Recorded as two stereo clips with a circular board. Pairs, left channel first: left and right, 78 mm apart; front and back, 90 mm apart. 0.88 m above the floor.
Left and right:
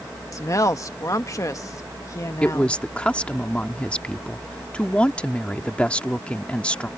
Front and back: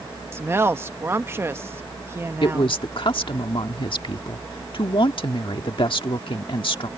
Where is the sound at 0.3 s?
125° left.